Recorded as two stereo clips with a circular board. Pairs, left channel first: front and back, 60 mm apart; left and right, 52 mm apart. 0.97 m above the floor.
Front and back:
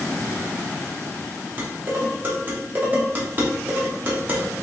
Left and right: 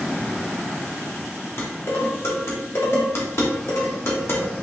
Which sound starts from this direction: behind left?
Dishes clattering, at 1.6 s.